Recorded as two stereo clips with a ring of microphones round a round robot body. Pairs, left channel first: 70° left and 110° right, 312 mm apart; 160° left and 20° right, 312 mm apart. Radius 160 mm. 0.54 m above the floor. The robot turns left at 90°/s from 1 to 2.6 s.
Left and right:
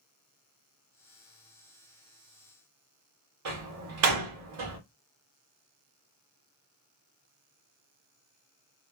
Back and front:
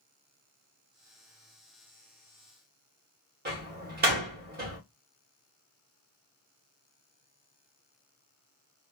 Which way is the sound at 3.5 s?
80° right.